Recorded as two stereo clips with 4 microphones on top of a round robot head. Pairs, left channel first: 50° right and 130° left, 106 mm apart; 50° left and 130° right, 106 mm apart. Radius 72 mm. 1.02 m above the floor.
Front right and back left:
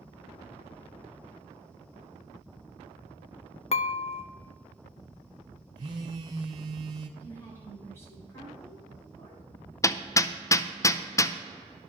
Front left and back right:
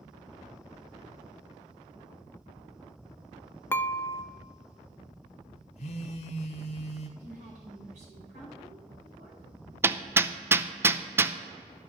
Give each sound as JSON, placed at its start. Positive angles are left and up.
{"t": 3.7, "sound": "dishes clattering", "azimuth_deg": -20, "distance_m": 0.5}
{"t": 5.8, "sound": "a phone buzzing", "azimuth_deg": 80, "distance_m": 1.0}
{"t": 7.2, "sound": "a woman speaking", "azimuth_deg": -120, "distance_m": 4.5}
{"t": 9.8, "sound": "hammering", "azimuth_deg": -80, "distance_m": 0.6}